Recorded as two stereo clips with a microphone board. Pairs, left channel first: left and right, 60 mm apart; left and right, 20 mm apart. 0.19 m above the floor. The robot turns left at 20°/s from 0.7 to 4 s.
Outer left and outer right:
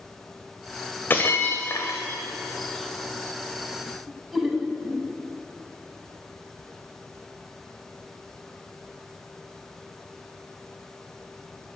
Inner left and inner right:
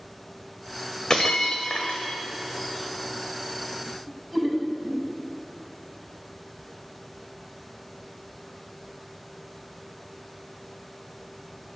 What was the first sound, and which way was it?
Breaking glass, 35° left (ahead or behind).